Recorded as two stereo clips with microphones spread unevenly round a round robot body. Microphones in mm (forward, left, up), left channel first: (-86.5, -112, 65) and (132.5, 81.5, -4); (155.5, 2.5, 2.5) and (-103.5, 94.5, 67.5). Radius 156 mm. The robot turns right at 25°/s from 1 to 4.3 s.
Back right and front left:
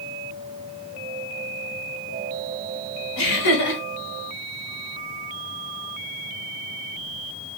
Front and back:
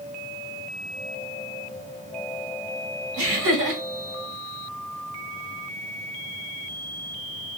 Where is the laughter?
160° right, 1.9 m; by 3.8 s 145° right, 1.9 m.